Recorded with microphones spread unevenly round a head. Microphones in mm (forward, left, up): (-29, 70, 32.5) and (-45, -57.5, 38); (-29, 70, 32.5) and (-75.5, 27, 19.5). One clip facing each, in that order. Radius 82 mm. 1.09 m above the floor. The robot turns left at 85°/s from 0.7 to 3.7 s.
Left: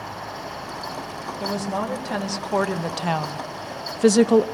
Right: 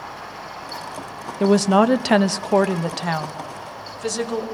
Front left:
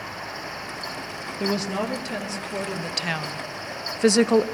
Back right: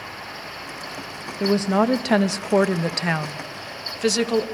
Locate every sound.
1.4 s a woman speaking: 55° right, 1.0 m; by 4.5 s 110° left, 1.0 m